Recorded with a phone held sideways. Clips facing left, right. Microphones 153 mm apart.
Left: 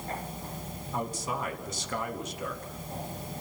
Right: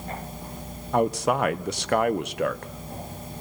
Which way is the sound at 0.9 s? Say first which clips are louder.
Right 12 dB; 70° right (ahead or behind).